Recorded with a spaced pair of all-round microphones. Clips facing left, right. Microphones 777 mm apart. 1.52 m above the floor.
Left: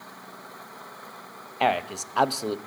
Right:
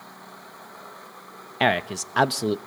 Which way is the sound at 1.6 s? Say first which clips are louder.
Right 2 dB; 55° right (ahead or behind).